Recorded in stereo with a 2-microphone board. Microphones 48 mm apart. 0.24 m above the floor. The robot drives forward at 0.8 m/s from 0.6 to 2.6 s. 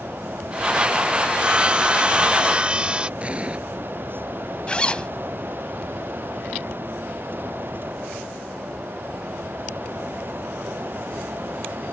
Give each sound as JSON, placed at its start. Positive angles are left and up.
{"t": 1.3, "sound": "sawing", "side_deg": -20}
{"t": 3.2, "sound": "an explosion", "side_deg": -25}
{"t": 4.7, "sound": "a zipper", "side_deg": 25}